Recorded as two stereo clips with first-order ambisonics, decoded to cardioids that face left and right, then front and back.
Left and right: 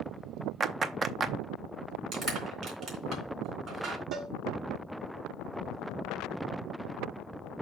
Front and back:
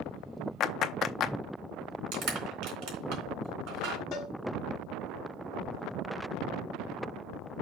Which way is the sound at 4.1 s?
40° right.